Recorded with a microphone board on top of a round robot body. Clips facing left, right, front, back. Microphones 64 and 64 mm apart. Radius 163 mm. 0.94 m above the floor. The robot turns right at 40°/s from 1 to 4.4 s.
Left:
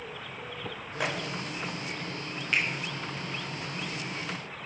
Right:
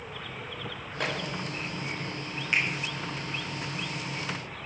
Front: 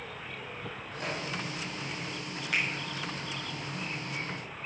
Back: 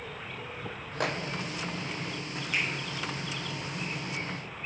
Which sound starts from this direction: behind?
A microwave, at 1.0 s.